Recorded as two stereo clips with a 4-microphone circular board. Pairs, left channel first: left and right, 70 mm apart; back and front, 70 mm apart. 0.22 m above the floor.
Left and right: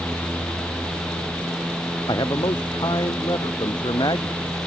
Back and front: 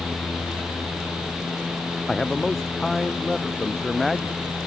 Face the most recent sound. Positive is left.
turn(degrees=90)